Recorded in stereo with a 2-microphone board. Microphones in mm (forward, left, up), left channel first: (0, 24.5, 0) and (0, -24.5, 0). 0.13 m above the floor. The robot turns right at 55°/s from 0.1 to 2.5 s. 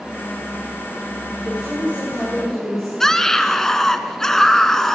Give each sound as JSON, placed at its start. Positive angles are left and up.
{"t": 1.4, "sound": "a woman speaking", "azimuth_deg": -60, "distance_m": 9.5}
{"t": 3.0, "sound": "a scream", "side_deg": 10, "distance_m": 1.2}